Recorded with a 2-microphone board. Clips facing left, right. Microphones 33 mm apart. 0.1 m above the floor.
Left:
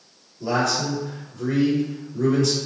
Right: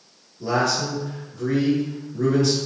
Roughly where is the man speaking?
Centre.